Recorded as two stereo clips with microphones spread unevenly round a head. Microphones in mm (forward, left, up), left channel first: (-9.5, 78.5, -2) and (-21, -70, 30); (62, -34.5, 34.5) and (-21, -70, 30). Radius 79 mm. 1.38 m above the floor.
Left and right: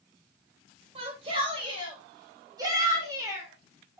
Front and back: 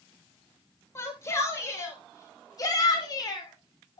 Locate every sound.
0.9 s a shout: 35° right, 7 m; by 4.0 s 15° right, 5 m